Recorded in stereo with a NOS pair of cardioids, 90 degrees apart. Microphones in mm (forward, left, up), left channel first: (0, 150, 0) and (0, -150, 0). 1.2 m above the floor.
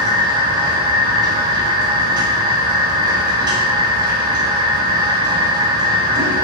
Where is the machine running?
15° right, 0.9 m.